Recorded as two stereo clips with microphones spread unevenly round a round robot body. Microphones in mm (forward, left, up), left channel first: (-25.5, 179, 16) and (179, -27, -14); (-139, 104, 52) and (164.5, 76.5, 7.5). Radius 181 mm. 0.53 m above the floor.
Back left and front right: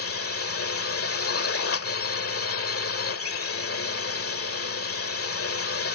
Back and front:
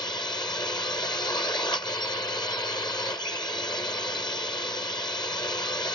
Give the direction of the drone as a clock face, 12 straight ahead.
9 o'clock.